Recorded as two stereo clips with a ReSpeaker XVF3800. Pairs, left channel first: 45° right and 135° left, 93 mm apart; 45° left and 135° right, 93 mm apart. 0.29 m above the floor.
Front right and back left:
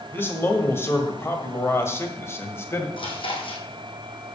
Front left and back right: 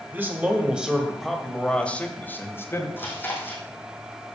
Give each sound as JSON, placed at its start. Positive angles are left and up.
{"t": 0.1, "sound": "a man speaking", "azimuth_deg": -85, "distance_m": 1.7}
{"t": 3.0, "sound": "chewing", "azimuth_deg": -25, "distance_m": 3.0}